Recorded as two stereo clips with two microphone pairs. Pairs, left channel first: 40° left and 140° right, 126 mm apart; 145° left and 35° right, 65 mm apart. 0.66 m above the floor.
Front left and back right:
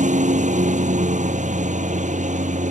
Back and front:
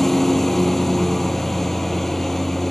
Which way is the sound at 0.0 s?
125° right.